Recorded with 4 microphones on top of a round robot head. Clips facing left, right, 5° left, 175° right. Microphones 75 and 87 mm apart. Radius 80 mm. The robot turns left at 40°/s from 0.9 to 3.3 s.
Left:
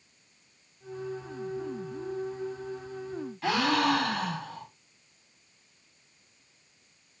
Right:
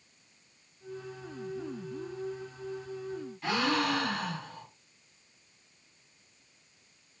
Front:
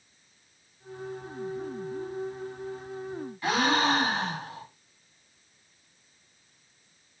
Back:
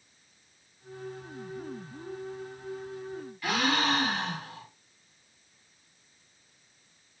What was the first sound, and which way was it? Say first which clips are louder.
A gasp: left 4 dB, front 3 dB; 70° left.